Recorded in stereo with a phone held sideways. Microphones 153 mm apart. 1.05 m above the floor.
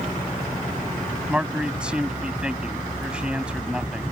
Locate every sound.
1.3 s a man speaking: 5° right (ahead or behind)